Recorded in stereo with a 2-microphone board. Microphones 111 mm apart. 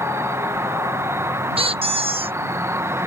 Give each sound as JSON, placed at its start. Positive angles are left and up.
{"t": 0.0, "sound": "an insect", "side_deg": -25}
{"t": 1.6, "sound": "a squeak", "side_deg": -60}